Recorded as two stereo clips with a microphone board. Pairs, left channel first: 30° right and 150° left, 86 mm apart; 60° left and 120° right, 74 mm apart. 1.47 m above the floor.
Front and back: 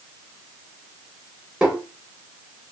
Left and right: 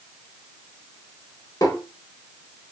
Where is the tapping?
75° left, 1.5 m.